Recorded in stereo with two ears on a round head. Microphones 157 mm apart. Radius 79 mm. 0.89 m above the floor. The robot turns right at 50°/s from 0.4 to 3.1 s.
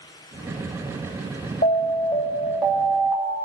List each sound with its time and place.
1.6 s an alarm: 130° left, 3 m; by 3.4 s 155° right, 3 m